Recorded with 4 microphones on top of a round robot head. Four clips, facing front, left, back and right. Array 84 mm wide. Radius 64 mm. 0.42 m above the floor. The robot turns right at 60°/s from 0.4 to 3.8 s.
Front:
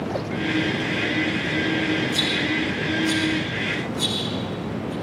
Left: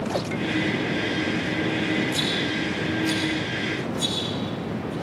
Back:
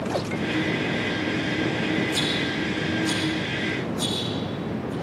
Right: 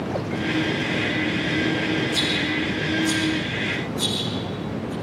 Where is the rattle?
135° left, 7.5 m; by 4.9 s 125° right, 7.5 m.